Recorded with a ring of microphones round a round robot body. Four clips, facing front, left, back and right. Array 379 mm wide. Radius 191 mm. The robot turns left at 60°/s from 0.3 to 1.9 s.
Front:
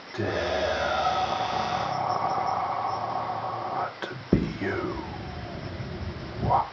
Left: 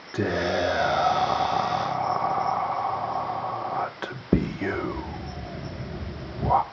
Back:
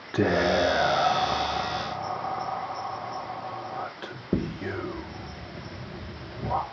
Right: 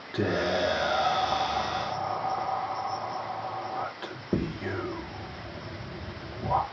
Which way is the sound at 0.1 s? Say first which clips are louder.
Left 2 dB, back 5 dB; 165° left.